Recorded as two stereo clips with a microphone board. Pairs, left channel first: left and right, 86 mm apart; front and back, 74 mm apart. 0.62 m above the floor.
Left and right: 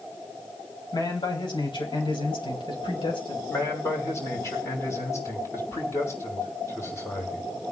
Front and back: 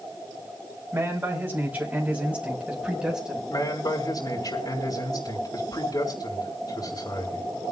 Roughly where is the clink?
I don't hear a clink.